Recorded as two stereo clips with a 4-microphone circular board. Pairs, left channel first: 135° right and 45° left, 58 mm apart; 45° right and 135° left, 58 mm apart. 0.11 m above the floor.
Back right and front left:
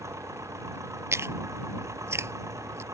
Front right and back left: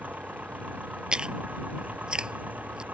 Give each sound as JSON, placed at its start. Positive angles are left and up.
{"t": 0.0, "sound": "an engine running", "azimuth_deg": 75}
{"t": 1.1, "sound": "chewing", "azimuth_deg": 65}